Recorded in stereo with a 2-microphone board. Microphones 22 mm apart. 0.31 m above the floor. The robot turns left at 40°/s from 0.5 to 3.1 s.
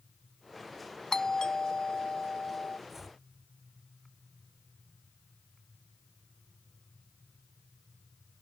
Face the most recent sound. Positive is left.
turn(degrees=-20)  # may be behind; listen again after turning